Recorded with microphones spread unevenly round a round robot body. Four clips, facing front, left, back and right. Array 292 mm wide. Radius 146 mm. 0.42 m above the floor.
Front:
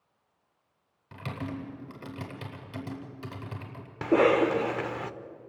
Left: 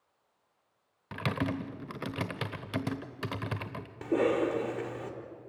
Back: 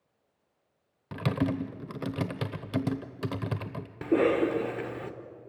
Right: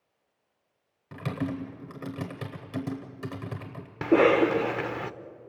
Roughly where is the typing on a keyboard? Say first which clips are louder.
Right 1 dB, back 8 dB; behind.